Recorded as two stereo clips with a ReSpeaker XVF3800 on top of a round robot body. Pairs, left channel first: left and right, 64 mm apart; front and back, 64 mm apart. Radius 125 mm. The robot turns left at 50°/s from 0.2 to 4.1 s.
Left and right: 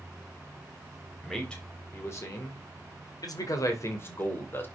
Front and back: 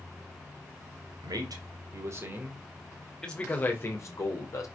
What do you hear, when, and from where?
1.2 s a man speaking: straight behind, 3 m; by 4.7 s 35° left, 3 m